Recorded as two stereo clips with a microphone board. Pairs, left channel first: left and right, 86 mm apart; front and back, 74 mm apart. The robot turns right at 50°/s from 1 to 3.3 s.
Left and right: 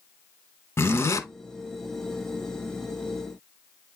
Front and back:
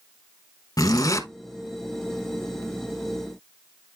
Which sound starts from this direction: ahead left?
A zipper, at 0.8 s.